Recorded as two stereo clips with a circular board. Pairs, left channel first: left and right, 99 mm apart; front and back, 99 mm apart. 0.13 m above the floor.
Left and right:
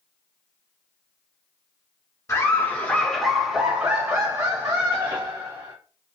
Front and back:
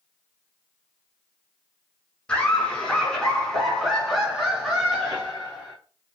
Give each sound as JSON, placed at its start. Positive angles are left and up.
{"t": 2.3, "sound": "laughter", "azimuth_deg": 70, "distance_m": 1.3}